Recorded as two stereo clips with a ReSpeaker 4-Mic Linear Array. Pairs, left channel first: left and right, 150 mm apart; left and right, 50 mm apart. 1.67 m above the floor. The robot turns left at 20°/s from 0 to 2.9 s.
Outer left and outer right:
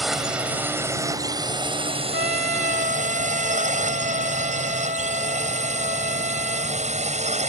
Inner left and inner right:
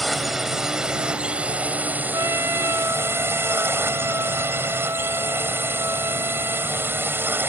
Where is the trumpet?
80° right; by 6.8 s 65° right (ahead or behind).